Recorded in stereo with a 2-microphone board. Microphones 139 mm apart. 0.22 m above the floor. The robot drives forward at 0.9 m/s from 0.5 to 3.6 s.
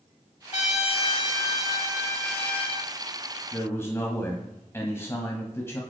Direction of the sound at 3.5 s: 20° left (ahead or behind).